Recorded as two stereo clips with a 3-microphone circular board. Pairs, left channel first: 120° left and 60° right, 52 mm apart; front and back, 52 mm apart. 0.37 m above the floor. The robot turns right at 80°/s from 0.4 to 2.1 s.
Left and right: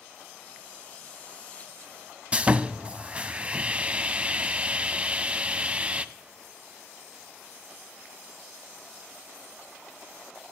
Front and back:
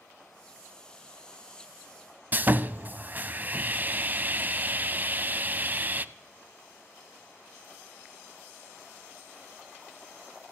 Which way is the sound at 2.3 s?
125° right.